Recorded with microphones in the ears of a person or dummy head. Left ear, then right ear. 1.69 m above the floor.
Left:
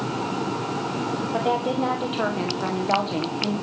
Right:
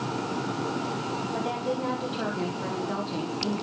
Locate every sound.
1.3 s a woman speaking: 35° left (ahead or behind), 1.4 m